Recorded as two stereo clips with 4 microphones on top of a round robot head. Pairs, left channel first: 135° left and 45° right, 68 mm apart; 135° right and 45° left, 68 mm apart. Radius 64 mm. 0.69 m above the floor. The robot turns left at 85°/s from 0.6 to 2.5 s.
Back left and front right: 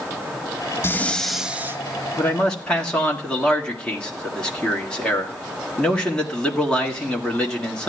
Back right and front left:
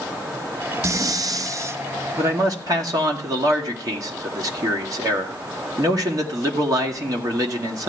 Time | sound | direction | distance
0.8 | breathing | 85° left | 0.6 m
2.2 | a man speaking | 85° left | 1.9 m